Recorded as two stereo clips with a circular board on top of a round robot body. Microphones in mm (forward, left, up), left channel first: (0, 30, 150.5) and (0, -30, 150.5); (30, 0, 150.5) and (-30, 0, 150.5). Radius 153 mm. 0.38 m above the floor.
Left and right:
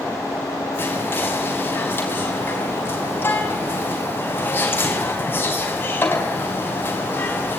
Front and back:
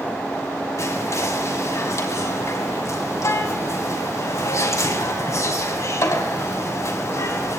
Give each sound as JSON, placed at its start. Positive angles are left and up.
{"t": 0.8, "sound": "whispering", "azimuth_deg": 35, "distance_m": 5.0}